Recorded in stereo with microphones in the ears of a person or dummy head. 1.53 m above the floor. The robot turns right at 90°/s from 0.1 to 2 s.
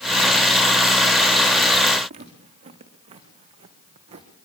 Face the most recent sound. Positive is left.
turn(degrees=-30)  # may be behind; listen again after turning